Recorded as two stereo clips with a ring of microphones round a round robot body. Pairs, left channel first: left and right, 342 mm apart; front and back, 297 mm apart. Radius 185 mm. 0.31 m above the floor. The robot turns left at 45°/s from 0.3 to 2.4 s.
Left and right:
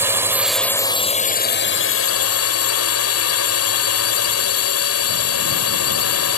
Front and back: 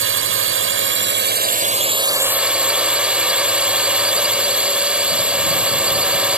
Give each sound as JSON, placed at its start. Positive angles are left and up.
{"t": 0.0, "sound": "a drone", "azimuth_deg": -170}